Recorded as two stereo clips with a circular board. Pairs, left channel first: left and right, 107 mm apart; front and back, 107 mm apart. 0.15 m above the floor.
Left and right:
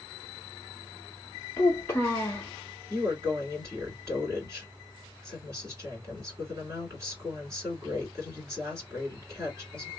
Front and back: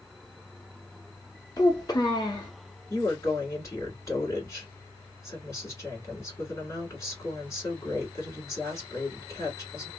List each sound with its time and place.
1.6 s a child speaking: 30° left, 0.9 m
2.9 s a woman speaking: 45° right, 2.5 m